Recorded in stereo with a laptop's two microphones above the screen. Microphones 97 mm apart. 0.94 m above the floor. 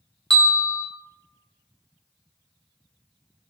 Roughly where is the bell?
Centre.